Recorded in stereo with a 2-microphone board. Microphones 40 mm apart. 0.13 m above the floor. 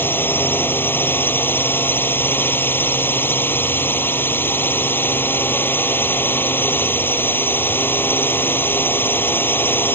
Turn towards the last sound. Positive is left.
turn(degrees=65)  # may be behind; listen again after turning